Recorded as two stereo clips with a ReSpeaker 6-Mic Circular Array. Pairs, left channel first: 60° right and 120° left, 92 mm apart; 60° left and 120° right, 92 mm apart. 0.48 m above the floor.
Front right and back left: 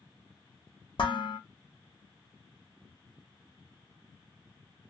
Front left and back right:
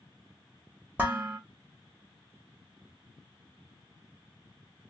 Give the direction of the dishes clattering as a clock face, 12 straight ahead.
2 o'clock.